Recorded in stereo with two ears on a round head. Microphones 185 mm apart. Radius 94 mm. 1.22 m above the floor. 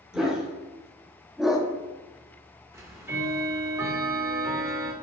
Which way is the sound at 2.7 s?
15° right (ahead or behind).